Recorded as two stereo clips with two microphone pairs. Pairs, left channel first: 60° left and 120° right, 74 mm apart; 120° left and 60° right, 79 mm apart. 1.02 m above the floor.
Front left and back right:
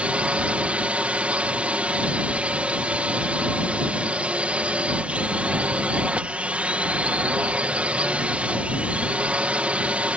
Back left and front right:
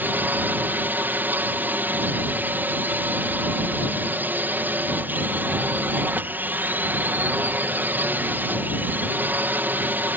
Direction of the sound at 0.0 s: 75° right.